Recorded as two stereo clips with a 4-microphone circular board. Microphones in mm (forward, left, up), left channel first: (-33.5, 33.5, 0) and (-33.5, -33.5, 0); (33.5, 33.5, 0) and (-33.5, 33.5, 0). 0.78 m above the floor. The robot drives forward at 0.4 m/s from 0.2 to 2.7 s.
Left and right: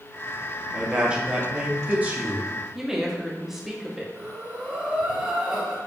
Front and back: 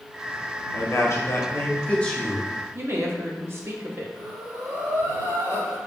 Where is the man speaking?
20° right, 0.9 m; by 2.5 s 90° right, 0.5 m.